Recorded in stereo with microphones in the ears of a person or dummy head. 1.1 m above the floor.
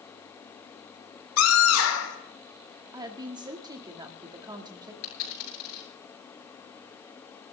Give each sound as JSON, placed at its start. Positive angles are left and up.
{"t": 1.4, "sound": "a scream", "side_deg": 80, "distance_m": 3.5}
{"t": 2.9, "sound": "a woman speaking", "side_deg": -20, "distance_m": 2.0}
{"t": 5.0, "sound": "a dropped coin", "side_deg": 55, "distance_m": 8.5}